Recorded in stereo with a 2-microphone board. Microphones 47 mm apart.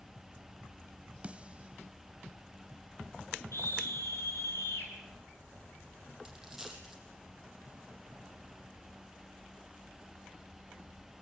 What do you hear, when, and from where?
1.2 s a snare drum: 25° right (ahead or behind), 0.5 m
3.5 s a scream: 65° left (ahead or behind), 7.5 m
6.2 s a dropped coin: 10° right (ahead or behind), 4 m